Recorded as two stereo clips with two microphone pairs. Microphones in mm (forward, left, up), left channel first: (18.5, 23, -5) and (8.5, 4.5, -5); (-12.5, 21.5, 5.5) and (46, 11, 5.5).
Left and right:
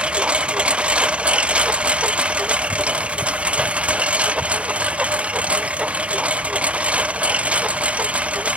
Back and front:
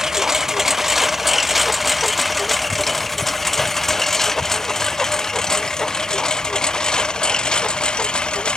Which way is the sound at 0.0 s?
90° right.